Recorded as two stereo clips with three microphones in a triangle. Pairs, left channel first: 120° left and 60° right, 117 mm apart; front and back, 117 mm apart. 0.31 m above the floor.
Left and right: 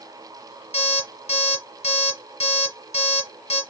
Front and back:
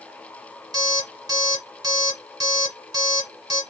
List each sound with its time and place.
0.7 s an alarm clock: 130° left, 1.6 m